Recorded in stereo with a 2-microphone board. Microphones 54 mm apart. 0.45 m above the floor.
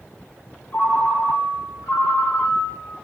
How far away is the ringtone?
About 2.0 m.